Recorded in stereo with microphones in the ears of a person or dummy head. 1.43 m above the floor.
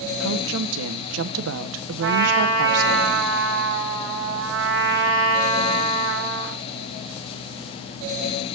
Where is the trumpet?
65° right (ahead or behind), 6 m.